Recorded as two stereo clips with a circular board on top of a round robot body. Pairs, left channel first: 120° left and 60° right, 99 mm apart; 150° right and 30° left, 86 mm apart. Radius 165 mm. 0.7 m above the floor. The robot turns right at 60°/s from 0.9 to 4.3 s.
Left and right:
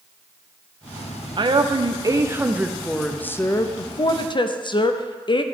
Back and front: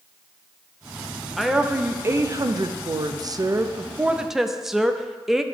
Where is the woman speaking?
60° right, 0.7 m; by 5.4 s 115° left, 0.7 m.